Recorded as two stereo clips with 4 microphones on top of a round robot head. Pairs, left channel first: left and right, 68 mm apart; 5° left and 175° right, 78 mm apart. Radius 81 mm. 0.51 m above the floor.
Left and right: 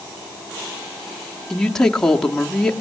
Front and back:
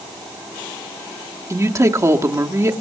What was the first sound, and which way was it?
A woman speaking, 165° left.